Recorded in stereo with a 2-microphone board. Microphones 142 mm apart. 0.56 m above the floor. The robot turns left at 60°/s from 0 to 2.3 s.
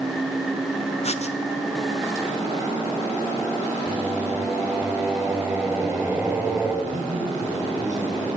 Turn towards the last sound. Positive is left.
turn(degrees=-70)  # may be behind; listen again after turning